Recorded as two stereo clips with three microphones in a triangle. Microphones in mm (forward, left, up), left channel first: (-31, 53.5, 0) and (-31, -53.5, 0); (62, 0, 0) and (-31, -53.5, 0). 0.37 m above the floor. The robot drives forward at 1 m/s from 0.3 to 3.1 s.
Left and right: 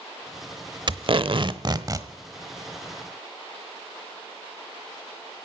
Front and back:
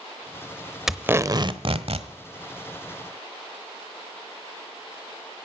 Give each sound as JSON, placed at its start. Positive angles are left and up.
{"t": 0.9, "sound": "tape being pulled", "azimuth_deg": -65, "distance_m": 0.8}